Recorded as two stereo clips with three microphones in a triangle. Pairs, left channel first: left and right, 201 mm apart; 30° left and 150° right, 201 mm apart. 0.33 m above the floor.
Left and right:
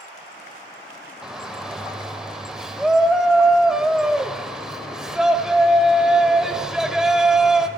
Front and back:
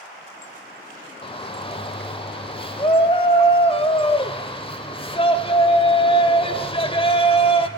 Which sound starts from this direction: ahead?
A shout, at 1.2 s.